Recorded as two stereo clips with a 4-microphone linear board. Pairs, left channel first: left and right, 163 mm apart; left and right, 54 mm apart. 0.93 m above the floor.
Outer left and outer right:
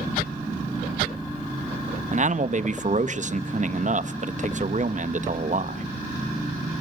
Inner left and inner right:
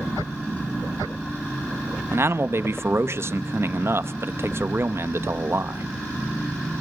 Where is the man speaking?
50° right (ahead or behind), 0.8 m.